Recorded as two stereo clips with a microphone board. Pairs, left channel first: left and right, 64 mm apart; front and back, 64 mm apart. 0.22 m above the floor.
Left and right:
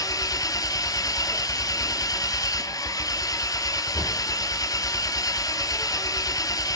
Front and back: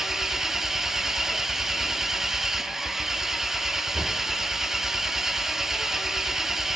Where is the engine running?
95° left, 0.9 m.